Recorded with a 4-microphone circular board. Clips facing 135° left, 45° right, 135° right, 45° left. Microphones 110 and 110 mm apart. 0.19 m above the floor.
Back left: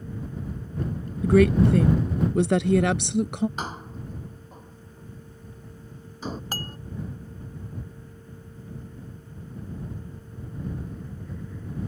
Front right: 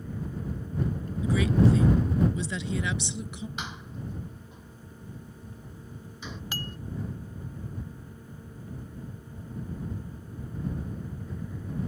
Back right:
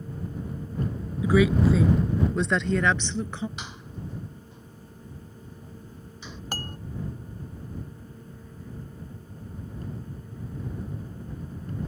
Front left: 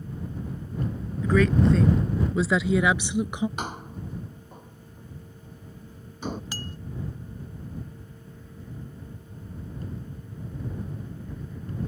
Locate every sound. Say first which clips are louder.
1.2 s a woman speaking: back left 6 dB, even; 145° left; by 3.5 s 115° left
3.6 s a door slam: back left 4 dB, front left 5 dB; 85° left
6.5 s dishes clattering: back left 2 dB, back right 2 dB; 175° right